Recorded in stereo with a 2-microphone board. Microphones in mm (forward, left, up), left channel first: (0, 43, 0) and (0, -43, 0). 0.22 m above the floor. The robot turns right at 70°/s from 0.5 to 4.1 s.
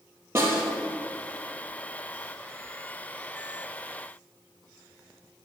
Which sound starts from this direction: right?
A snare drum, at 0.3 s.